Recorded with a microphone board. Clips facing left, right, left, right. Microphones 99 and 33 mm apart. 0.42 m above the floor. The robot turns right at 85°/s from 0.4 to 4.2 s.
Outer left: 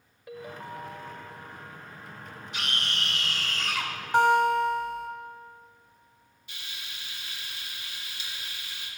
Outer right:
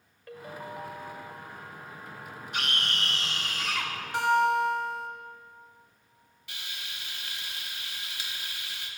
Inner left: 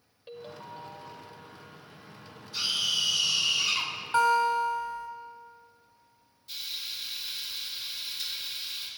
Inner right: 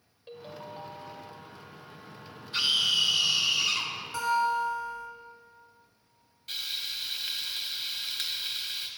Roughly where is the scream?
Right.